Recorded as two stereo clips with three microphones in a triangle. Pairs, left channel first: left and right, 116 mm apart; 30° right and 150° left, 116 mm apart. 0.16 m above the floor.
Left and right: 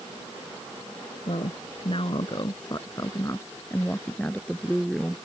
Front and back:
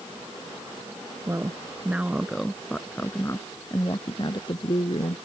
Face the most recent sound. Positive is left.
turn(degrees=0)